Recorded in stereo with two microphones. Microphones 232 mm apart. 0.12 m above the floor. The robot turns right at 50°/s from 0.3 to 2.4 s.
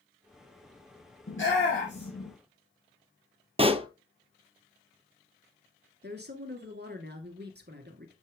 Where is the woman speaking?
45° right (ahead or behind), 1.5 m.